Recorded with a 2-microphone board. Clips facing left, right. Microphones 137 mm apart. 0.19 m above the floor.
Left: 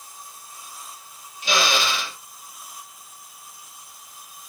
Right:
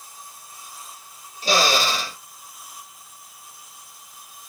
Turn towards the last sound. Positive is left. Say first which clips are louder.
# right 3 dB
turn(degrees=-35)  # may be behind; listen again after turning